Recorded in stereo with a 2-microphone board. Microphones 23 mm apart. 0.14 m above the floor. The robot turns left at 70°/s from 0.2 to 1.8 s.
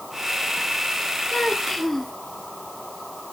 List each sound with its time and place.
1.3 s a child speaking: 50° left, 1.4 m; by 2.1 s 15° left, 1.4 m